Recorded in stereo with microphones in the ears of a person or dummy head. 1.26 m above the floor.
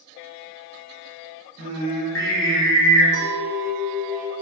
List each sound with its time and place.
1.6 s singing: 65° left (ahead or behind), 0.9 m
3.1 s a clink: 65° left (ahead or behind), 1.3 m